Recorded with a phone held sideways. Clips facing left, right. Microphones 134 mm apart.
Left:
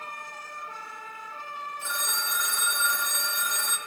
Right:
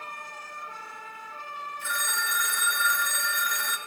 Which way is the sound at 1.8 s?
25° left (ahead or behind).